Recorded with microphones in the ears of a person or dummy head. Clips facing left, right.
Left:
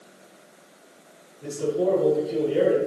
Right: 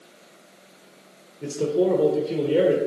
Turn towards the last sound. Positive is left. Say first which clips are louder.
# right 2 dB
turn(degrees=-75)  # may be behind; listen again after turning